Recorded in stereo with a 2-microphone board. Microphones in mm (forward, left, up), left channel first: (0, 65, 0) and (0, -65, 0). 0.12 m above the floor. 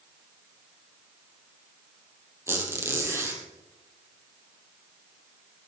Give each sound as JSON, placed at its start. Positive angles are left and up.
{"t": 2.5, "sound": "a squeak", "side_deg": -20, "distance_m": 3.0}